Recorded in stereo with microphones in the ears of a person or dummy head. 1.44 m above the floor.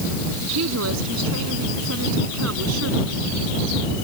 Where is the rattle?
I don't hear a rattle.